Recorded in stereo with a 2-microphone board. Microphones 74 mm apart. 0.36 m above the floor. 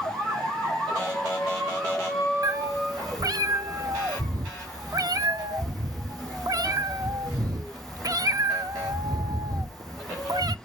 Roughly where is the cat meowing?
Right.